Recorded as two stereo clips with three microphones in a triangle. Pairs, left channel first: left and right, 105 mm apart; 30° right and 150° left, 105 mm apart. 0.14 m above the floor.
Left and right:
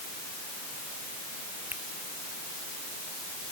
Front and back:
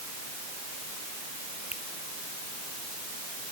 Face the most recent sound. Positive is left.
turn(degrees=-15)